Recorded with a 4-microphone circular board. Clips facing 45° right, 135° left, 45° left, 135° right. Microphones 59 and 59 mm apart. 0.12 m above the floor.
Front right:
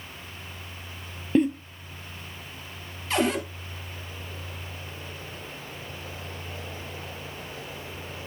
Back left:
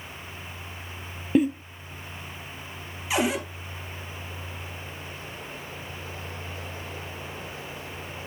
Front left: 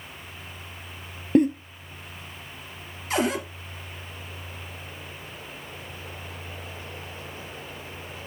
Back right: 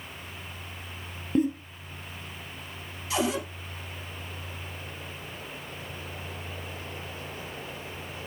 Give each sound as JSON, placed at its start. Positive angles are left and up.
{"t": 1.4, "sound": "a giggle", "azimuth_deg": 50, "distance_m": 0.9}
{"t": 3.1, "sound": "a cupboard door", "azimuth_deg": 55, "distance_m": 1.6}